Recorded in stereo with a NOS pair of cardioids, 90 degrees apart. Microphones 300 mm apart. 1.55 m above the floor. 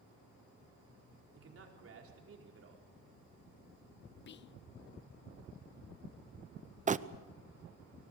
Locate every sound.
1.3 s a man speaking: 45° right, 4.5 m
4.3 s whispering: 40° left, 0.5 m
6.9 s crumpling: 25° right, 0.6 m